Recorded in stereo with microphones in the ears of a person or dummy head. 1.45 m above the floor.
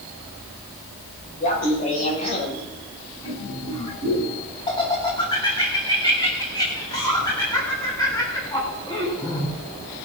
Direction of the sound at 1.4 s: 35° left (ahead or behind).